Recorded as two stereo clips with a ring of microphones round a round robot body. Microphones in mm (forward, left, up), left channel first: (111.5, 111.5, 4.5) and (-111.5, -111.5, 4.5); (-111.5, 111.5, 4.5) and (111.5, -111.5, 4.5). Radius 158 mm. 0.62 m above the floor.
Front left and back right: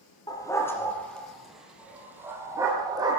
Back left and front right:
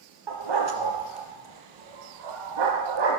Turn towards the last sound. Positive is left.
turn(degrees=-55)